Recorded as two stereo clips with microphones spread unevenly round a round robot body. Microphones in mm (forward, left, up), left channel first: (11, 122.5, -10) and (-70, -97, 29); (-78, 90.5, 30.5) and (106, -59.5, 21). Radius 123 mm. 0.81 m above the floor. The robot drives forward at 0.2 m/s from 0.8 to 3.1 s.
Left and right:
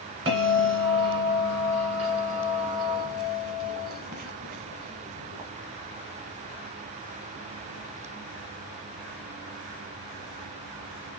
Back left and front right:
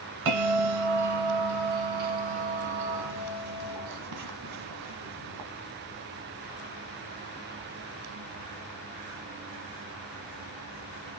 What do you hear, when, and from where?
0.2 s a bell: 45° right, 1.6 m; by 5.5 s 60° right, 1.3 m